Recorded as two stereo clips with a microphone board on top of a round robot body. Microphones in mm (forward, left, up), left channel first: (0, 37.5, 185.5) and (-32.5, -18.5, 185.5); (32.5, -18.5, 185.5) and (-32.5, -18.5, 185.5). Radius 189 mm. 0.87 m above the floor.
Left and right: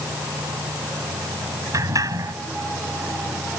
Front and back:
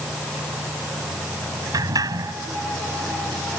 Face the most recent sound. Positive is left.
turn(degrees=-155)